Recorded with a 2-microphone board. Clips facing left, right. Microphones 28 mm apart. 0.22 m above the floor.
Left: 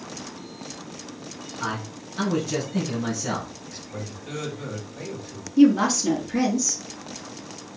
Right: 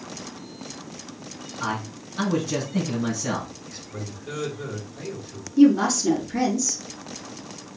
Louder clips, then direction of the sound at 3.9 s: Even; 25° left (ahead or behind).